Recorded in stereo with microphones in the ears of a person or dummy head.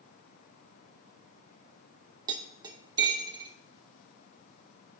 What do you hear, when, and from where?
2.3 s cutlery clinking: 30° right (ahead or behind), 0.8 m